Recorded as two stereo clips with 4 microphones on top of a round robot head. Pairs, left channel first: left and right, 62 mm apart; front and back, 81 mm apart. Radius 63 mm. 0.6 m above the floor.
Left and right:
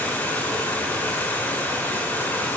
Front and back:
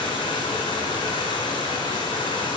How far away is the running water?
About 4.5 m.